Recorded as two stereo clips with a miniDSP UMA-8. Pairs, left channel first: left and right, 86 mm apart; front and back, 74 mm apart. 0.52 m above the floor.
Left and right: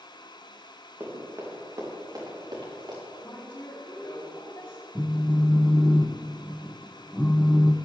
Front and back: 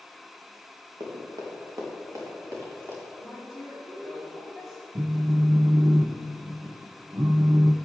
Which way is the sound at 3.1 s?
95° left.